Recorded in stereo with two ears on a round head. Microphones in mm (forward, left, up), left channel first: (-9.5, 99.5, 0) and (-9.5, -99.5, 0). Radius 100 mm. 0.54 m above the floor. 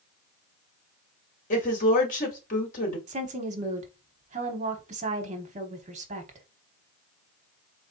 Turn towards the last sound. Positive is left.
turn(degrees=-35)  # may be behind; listen again after turning